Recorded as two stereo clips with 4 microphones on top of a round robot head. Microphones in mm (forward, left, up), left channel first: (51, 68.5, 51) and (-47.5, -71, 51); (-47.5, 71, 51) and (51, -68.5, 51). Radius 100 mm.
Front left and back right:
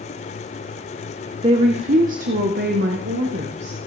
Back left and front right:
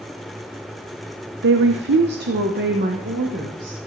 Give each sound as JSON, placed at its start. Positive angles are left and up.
{"t": 1.4, "sound": "a woman speaking", "azimuth_deg": -65, "distance_m": 0.7}